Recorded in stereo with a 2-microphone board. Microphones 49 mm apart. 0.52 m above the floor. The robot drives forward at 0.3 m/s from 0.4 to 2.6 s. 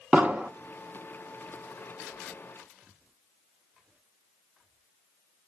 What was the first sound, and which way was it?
An explosion, 30° right (ahead or behind).